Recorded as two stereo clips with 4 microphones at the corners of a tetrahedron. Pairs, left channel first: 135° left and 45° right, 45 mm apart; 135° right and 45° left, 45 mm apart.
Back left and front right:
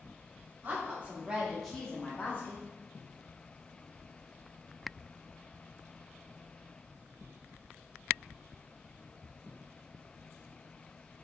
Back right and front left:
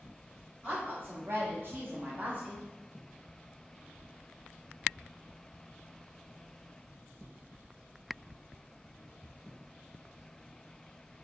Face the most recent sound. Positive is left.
turn(degrees=100)